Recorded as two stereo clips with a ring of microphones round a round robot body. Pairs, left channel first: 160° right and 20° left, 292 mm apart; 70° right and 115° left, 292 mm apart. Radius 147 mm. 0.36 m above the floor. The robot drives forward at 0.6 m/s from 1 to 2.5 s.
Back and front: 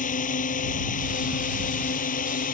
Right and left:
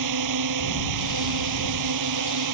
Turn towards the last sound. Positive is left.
turn(degrees=140)